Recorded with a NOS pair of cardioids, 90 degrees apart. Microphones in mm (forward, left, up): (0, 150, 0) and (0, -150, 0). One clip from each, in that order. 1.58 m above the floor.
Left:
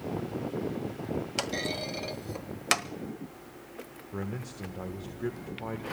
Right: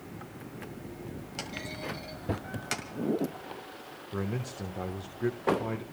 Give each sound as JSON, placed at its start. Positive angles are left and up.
{"t": 1.4, "sound": "a clunk", "azimuth_deg": 50, "distance_m": 1.1}
{"t": 4.1, "sound": "a man speaking", "azimuth_deg": -15, "distance_m": 1.1}